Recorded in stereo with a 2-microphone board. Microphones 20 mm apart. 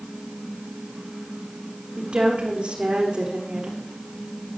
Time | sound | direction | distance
2.0 | a woman speaking | 75° right (ahead or behind) | 8 m